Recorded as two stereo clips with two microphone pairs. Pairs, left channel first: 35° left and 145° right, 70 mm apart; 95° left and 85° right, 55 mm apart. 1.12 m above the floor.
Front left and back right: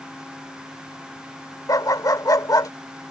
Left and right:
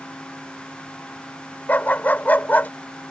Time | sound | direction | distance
1.7 | a dog barking | 40° left | ?